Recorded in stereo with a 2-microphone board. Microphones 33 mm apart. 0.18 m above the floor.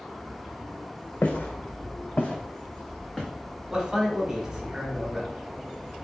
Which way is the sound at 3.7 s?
10° right (ahead or behind).